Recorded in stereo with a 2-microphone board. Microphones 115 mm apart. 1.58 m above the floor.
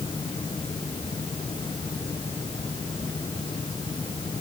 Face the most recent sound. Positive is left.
No sound to turn to.